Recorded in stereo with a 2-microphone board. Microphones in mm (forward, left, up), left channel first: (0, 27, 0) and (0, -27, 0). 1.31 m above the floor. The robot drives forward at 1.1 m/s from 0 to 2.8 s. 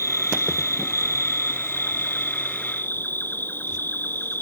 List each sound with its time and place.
0.0 s an insect: 70° left (ahead or behind); by 4.4 s 40° left (ahead or behind)